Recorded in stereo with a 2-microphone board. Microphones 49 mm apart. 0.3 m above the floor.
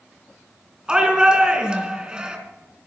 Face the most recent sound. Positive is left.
turn(degrees=-20)  # may be behind; listen again after turning